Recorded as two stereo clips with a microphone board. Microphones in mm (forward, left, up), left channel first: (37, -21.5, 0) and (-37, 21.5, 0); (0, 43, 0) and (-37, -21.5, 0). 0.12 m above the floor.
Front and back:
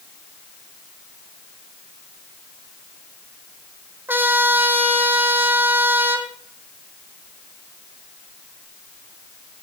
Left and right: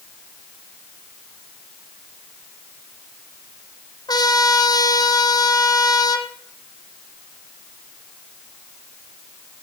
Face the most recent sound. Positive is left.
turn(degrees=85)